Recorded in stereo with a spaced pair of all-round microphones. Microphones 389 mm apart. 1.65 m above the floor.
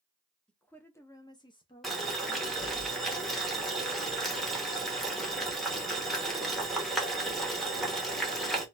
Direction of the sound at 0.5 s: Centre (ahead or behind).